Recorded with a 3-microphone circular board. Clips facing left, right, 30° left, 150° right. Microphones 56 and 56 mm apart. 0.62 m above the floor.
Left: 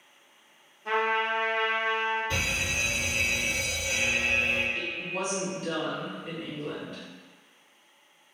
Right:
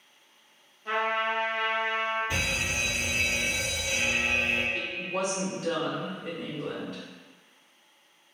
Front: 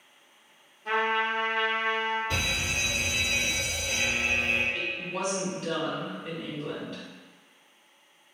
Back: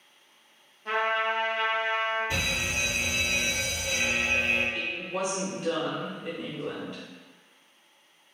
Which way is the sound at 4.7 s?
85° right.